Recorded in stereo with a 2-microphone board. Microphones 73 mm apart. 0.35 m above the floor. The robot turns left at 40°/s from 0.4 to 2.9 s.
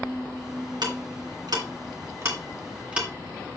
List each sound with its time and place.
0.8 s ticking: 75° right (ahead or behind), 2 m; by 3.1 s 15° right (ahead or behind), 2 m